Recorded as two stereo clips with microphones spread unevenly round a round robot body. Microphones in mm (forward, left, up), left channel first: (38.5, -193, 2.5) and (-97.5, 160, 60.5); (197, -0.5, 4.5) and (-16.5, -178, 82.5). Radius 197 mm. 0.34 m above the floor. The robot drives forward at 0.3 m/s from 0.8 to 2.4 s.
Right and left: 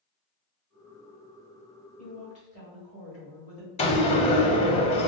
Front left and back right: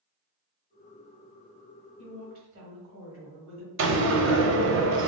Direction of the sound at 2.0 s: 175° right.